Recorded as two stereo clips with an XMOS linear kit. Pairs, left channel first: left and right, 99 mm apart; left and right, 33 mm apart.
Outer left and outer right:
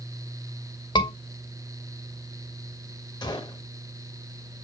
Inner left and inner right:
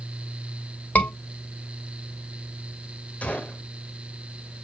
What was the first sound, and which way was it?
A scream, 50° left (ahead or behind).